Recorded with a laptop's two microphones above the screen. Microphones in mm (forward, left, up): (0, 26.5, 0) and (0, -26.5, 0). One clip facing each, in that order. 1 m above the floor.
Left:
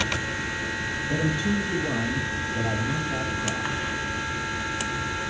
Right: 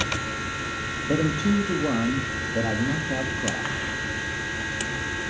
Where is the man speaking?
45° right (ahead or behind), 1.8 m.